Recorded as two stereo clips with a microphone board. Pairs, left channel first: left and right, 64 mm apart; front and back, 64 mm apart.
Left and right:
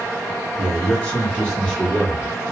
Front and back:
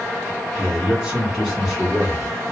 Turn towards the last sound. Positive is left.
turn(degrees=35)